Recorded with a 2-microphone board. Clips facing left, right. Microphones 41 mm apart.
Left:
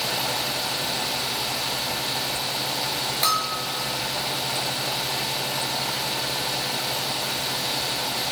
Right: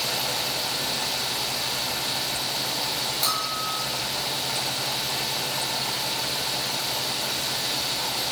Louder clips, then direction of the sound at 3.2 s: Left 5 dB; 70° left (ahead or behind).